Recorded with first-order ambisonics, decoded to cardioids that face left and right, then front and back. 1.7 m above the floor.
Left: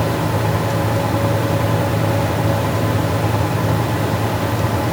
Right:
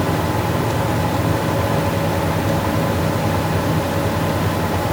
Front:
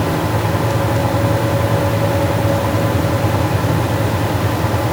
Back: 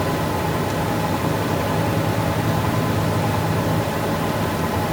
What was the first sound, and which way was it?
Only background noise.